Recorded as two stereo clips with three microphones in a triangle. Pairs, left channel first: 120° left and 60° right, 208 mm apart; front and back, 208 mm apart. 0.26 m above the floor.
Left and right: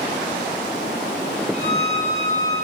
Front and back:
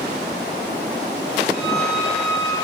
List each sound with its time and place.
1.5 s a violin: 90° right, 3.5 m